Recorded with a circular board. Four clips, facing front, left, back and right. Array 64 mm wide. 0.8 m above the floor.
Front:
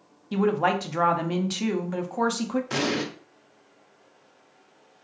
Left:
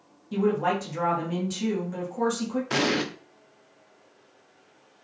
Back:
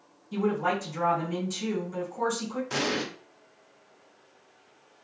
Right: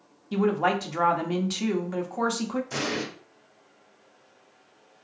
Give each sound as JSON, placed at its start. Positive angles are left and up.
{"t": 0.3, "sound": "a woman speaking", "azimuth_deg": -30, "distance_m": 0.8}
{"t": 2.7, "sound": "an explosion", "azimuth_deg": 75, "distance_m": 0.6}